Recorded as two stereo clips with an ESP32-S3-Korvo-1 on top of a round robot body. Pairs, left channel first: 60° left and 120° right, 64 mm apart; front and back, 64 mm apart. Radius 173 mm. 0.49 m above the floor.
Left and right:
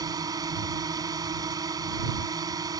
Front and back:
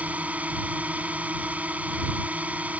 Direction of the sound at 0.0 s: 115° right.